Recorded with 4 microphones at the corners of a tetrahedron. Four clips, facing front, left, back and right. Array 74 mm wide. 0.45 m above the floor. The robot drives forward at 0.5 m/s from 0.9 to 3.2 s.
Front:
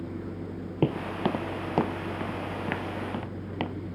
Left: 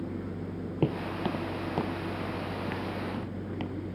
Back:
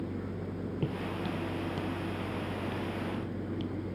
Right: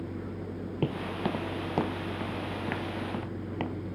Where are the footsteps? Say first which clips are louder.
Left 1 dB, front 10 dB; 15° left; by 3.8 s 20° right.